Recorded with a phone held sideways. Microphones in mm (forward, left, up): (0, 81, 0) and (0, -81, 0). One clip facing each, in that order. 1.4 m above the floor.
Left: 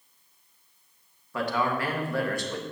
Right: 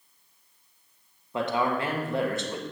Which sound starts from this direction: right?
A man speaking, at 1.3 s.